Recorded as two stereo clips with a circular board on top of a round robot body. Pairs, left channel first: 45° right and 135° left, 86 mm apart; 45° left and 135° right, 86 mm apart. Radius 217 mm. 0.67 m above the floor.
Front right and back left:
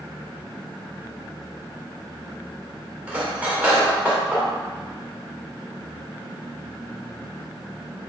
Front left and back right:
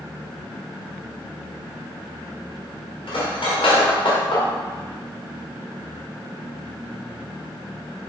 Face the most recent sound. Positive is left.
turn(degrees=60)